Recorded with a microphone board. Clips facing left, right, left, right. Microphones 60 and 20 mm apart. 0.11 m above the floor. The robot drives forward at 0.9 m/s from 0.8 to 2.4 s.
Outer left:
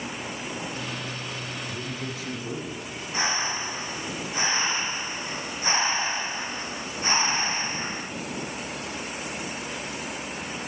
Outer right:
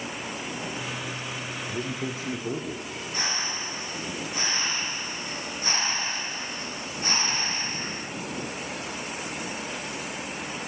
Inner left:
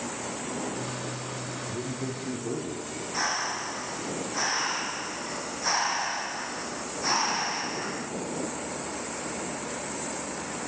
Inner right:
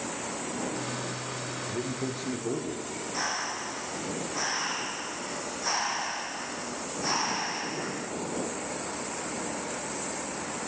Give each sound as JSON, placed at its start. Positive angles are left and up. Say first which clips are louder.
{"t": 1.7, "sound": "a man speaking", "louder": "outer right 2 dB, inner right 2 dB", "side_deg": -40, "distance_m": 1.8}
{"t": 3.1, "sound": "breathing", "louder": "outer left 5 dB, inner left 3 dB", "side_deg": 25, "distance_m": 1.0}